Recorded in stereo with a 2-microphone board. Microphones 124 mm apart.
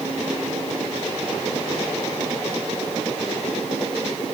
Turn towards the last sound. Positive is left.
No sound to turn to.